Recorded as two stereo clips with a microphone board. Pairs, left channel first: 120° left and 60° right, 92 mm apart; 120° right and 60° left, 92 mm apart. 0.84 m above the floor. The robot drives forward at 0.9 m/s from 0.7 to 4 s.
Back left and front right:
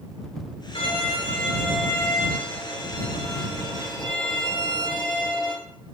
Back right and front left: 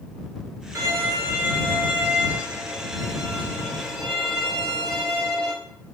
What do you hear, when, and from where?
0.8 s a violin: 115° left, 2 m; by 5.5 s 155° left, 4 m